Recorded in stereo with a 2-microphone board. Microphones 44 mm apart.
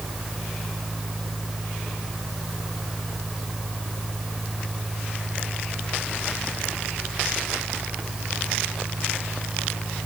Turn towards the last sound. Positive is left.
No sound to turn to.